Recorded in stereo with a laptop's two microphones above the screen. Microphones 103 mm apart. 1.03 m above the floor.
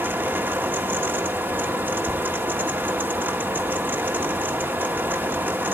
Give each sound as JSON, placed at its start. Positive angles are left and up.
{"t": 0.0, "sound": "a fan", "side_deg": -20, "distance_m": 1.1}